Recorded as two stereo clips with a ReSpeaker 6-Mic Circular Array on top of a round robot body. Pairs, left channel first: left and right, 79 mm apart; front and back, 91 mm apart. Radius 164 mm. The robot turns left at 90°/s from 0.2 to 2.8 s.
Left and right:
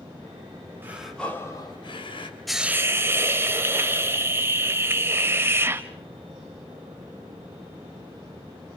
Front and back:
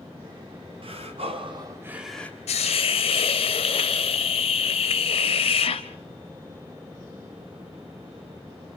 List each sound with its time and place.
0.8 s breathing: 155° right, 4 m; by 2.4 s 65° left, 4 m
2.5 s a hiss: straight ahead, 0.6 m; by 5.8 s 30° right, 0.6 m